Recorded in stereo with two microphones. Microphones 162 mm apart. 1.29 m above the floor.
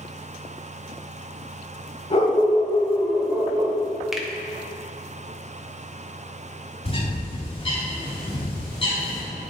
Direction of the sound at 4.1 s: 5° right (ahead or behind).